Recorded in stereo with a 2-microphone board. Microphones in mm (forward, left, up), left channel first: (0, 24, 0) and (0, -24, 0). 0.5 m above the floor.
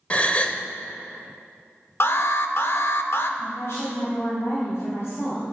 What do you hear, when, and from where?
0.1 s a gasp: 25° left (ahead or behind), 0.6 m
2.0 s an alarm: 55° left (ahead or behind), 0.7 m
3.4 s a woman speaking: 65° left (ahead or behind), 3 m